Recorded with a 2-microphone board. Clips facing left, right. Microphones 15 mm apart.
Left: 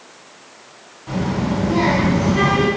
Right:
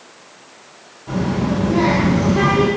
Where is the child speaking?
45° left (ahead or behind), 2.0 m.